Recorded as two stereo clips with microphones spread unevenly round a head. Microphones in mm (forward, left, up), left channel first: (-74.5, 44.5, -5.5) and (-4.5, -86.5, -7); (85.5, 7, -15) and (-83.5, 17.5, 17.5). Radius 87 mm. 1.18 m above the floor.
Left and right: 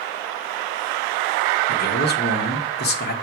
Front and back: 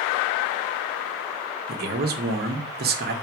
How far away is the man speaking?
About 1.3 m.